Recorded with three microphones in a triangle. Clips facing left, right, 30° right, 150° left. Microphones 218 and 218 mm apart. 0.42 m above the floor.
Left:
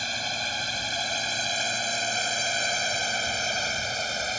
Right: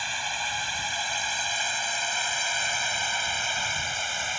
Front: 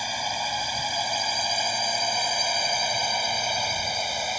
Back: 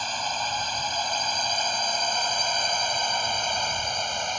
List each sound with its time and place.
0.0 s a drone: 50° left